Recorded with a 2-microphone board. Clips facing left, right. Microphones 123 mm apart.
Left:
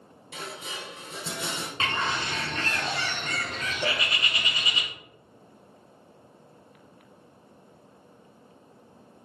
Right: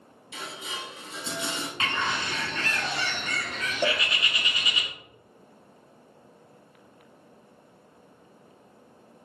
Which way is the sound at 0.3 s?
45° left (ahead or behind).